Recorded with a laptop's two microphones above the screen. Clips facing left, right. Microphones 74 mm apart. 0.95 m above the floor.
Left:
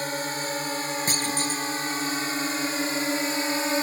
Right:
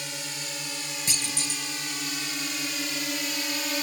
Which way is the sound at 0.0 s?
45° left (ahead or behind).